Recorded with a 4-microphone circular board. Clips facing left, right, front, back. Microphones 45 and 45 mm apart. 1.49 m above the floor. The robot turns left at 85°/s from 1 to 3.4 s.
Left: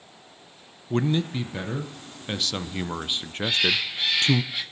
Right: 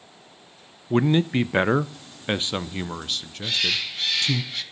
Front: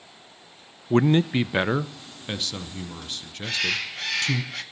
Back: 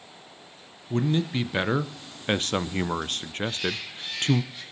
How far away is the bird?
About 1.5 m.